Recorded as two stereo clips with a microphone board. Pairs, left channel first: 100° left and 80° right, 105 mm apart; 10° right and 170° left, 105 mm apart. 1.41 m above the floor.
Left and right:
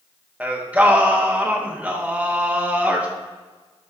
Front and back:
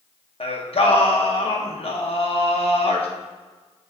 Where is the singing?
5° right, 0.9 m.